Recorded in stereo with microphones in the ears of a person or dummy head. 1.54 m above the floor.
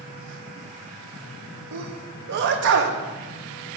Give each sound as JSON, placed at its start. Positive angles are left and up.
{"t": 1.7, "sound": "a sneeze", "side_deg": -60, "distance_m": 0.7}